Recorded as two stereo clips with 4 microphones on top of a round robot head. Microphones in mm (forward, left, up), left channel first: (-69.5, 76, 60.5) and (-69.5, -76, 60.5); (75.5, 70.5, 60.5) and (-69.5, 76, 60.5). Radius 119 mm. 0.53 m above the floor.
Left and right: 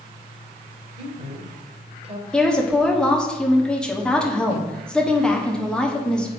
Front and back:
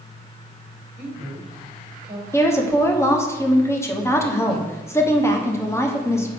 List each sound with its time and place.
1.0 s a woman speaking: 125° right, 2.5 m
2.3 s a woman speaking: 15° left, 1.3 m